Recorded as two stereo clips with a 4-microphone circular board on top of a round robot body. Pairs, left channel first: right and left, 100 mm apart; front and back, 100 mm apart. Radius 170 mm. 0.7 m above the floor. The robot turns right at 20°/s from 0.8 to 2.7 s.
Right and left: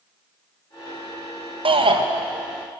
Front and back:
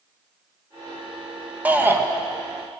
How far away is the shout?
About 1.9 m.